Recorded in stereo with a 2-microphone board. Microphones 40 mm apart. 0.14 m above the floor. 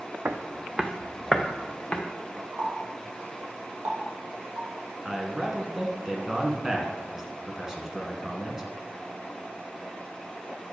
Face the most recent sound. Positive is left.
turn(degrees=-10)  # may be behind; listen again after turning